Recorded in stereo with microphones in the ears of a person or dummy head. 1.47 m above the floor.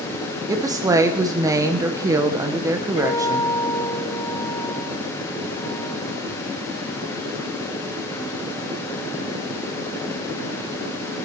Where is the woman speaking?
20° right (ahead or behind), 1.0 m.